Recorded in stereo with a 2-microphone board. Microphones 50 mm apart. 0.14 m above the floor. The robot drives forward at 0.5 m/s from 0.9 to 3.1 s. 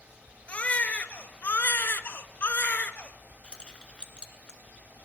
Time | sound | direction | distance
0.5 | a baby crying | 30° left (ahead or behind) | 0.8 m
3.4 | keys jangling | 15° left (ahead or behind) | 1.2 m